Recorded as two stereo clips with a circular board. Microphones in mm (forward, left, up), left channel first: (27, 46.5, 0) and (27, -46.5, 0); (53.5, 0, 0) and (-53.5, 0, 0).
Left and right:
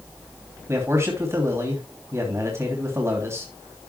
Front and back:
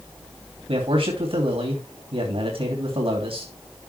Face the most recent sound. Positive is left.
turn(degrees=-150)